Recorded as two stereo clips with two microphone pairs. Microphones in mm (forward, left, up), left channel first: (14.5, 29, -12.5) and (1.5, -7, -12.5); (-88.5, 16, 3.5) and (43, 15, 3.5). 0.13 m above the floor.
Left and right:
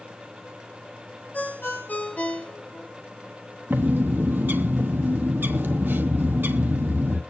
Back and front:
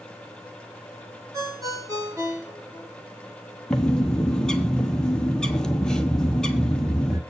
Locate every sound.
1.3 s a ringtone: 55° left, 1.9 m
3.7 s a bird: 100° right, 0.9 m